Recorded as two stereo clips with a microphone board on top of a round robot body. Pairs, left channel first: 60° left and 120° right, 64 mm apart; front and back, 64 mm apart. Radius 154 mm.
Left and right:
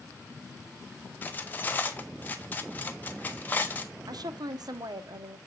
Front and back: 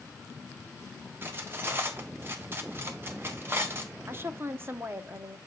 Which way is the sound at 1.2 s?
125° left.